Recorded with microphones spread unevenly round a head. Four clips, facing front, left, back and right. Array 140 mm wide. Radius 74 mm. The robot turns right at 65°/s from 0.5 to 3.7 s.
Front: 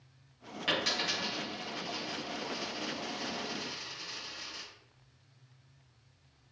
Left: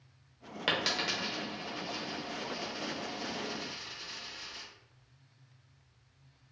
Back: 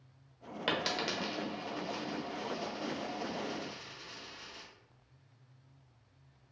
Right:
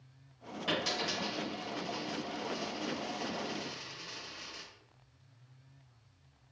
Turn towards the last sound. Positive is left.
turn(degrees=-70)